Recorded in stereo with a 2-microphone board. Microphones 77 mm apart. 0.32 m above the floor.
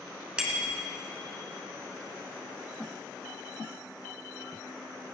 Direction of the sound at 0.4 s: 10° right (ahead or behind).